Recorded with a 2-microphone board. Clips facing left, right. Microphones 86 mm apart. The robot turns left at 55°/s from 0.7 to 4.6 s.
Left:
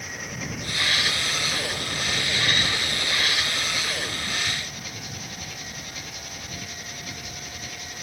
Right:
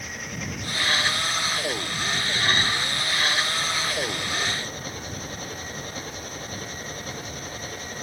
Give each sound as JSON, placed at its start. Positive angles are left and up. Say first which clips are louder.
{"t": 0.0, "sound": "an engine running", "louder": "even", "azimuth_deg": 180}